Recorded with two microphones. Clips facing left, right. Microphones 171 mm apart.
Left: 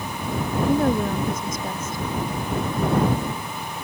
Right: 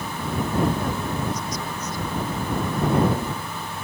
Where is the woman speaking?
55° left (ahead or behind).